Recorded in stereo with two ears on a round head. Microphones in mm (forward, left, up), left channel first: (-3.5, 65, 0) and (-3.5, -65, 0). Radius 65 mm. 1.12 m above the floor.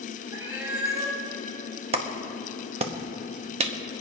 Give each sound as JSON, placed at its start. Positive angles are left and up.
{"t": 0.3, "sound": "a cat meowing", "side_deg": -15, "distance_m": 3.0}
{"t": 1.9, "sound": "a clap", "side_deg": -40, "distance_m": 0.9}